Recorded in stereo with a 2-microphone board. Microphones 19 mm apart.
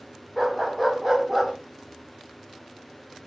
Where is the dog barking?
10° right (ahead or behind), 8 m; by 1.5 s 20° right (ahead or behind), 8 m.